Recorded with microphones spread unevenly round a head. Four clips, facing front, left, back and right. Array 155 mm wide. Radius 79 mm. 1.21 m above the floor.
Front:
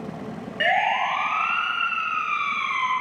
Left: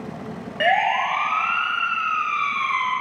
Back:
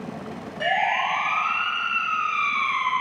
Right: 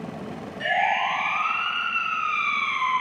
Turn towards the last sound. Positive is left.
turn(degrees=100)